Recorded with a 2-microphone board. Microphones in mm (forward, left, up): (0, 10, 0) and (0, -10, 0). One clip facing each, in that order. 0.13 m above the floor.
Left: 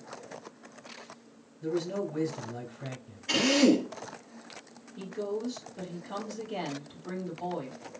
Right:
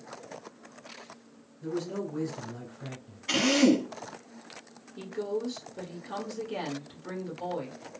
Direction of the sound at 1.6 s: 10° left (ahead or behind).